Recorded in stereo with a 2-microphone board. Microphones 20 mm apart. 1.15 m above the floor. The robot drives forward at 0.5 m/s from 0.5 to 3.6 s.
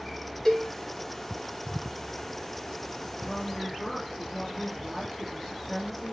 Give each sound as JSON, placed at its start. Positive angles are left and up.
{"t": 0.5, "sound": "a cowbell", "side_deg": 25, "distance_m": 2.5}
{"t": 3.2, "sound": "a woman speaking", "side_deg": -5, "distance_m": 3.0}